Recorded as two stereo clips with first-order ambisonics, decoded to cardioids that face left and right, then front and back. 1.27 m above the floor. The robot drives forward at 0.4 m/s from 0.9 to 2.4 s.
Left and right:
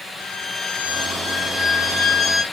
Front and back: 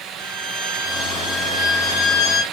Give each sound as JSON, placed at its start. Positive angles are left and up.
{"t": 0.2, "sound": "a violin", "azimuth_deg": 30, "distance_m": 5.5}